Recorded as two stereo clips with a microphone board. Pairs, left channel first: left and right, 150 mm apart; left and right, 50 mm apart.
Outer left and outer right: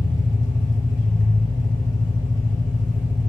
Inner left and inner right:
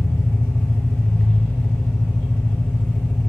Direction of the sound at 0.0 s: 25° left (ahead or behind).